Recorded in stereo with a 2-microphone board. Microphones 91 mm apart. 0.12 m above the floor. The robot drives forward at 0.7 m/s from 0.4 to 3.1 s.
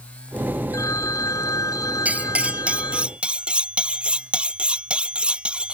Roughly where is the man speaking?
I don't hear a man speaking.